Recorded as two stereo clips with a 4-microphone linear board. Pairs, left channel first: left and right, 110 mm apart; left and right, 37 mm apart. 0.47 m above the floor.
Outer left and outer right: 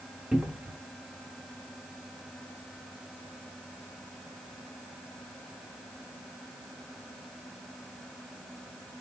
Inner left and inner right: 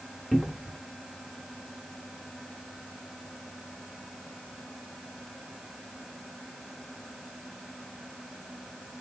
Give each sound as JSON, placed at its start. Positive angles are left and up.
{"t": 0.3, "sound": "a cupboard door", "side_deg": -10, "distance_m": 0.9}